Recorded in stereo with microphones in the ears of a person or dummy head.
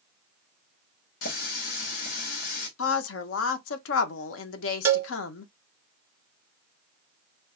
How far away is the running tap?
About 1.2 m.